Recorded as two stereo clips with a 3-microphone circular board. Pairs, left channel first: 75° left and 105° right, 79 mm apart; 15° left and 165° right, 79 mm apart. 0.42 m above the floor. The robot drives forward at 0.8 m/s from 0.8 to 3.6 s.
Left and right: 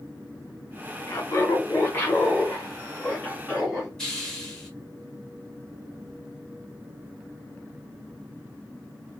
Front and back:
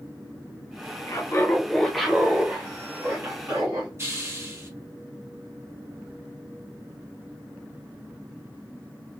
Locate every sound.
1.1 s laughter: 35° left, 1.0 m; by 3.9 s 160° left, 1.6 m
4.0 s a hiss: 155° left, 1.2 m